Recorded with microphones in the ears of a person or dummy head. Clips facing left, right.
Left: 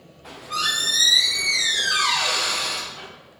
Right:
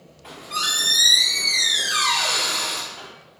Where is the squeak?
Centre (ahead or behind), 1.1 m.